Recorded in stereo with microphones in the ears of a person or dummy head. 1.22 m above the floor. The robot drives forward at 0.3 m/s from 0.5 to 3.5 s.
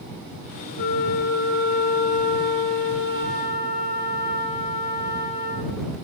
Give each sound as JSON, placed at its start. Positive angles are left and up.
{"t": 0.8, "sound": "a flute", "side_deg": 40, "distance_m": 0.6}